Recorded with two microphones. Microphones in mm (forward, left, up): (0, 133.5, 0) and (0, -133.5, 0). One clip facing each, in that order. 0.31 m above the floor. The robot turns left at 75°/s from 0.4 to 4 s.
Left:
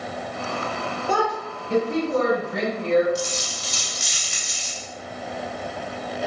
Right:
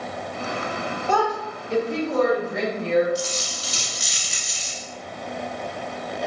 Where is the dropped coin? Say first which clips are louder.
Even; 25° left, 0.8 m; by 4.8 s 40° right, 0.8 m.